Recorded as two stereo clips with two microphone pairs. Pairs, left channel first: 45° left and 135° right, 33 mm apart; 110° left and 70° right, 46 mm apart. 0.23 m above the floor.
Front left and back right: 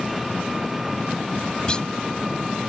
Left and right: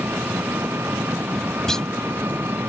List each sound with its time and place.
0.0 s an engine running: 50° right
1.7 s a clunk: 45° left